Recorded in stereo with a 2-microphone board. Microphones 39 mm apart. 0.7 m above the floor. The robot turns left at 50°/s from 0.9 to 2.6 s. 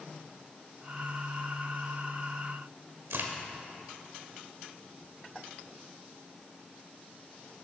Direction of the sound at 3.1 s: 85° right.